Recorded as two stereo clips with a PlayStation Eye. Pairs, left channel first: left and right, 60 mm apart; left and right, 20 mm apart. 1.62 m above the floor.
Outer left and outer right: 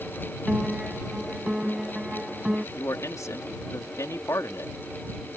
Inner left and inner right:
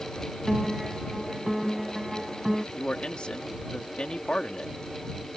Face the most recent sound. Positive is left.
turn(degrees=70)  # may be behind; listen again after turning